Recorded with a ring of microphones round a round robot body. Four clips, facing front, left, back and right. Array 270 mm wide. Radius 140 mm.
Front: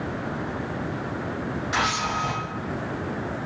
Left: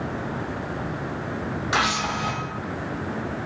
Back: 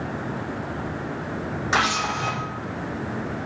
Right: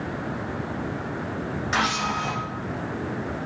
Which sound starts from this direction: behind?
A camera shutter, at 1.7 s.